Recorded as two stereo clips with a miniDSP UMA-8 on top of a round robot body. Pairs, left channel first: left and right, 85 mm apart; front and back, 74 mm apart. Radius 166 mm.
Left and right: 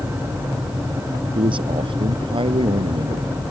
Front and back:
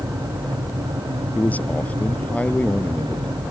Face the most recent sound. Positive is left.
turn(degrees=-75)